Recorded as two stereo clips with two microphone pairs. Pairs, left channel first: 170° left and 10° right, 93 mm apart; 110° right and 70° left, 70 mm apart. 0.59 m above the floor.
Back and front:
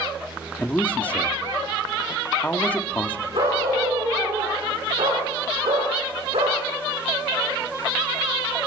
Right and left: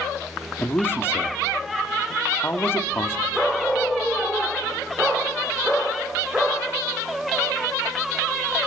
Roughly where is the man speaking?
Behind right.